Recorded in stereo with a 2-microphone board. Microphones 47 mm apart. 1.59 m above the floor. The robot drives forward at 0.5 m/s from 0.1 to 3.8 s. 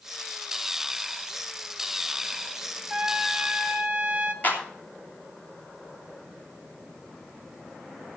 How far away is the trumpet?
About 1.7 m.